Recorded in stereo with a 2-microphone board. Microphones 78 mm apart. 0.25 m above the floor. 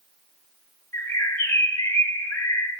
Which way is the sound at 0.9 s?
25° left (ahead or behind).